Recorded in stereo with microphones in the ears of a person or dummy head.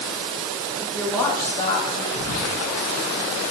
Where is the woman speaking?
10° right (ahead or behind), 0.9 m; by 2.0 s 40° left (ahead or behind), 1.0 m.